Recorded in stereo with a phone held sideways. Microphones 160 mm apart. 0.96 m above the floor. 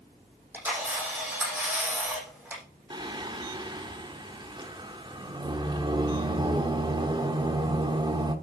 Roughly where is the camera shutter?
Centre.